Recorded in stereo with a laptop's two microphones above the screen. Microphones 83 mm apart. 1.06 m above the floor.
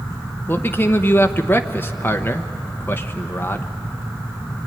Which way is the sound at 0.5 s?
25° left (ahead or behind).